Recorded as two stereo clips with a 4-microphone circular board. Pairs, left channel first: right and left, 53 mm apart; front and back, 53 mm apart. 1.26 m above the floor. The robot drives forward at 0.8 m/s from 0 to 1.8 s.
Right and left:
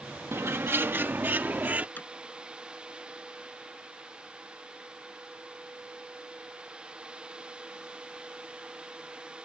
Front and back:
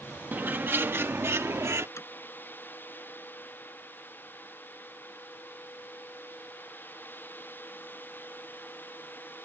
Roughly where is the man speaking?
No man speaking in this recording.